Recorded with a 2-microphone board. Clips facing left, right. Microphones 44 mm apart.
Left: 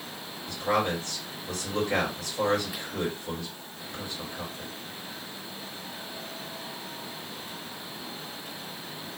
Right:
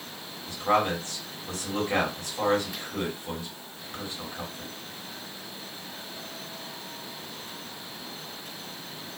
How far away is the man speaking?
About 1.8 m.